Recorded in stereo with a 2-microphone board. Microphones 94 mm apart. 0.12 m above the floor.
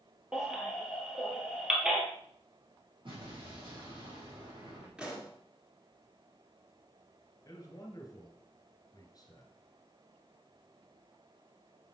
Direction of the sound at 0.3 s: 5° right (ahead or behind).